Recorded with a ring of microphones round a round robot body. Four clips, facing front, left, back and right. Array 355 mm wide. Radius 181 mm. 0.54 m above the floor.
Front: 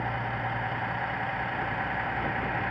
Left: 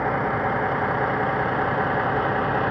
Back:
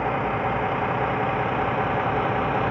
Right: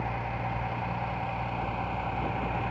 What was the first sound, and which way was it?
A vehicle, 125° left.